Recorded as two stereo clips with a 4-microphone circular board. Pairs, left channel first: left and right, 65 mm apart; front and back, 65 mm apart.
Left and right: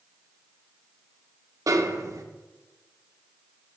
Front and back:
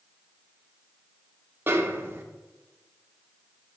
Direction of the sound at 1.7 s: 130° right.